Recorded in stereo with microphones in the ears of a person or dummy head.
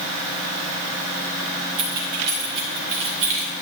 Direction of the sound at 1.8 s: 55° right (ahead or behind).